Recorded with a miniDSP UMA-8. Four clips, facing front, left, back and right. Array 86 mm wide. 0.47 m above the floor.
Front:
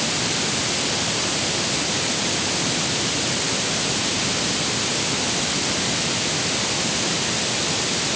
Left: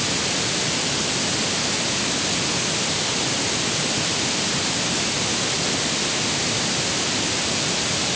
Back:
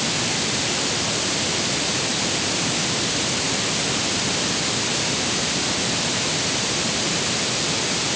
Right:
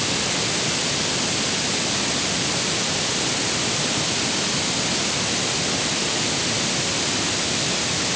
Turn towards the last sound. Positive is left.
No sound to turn to.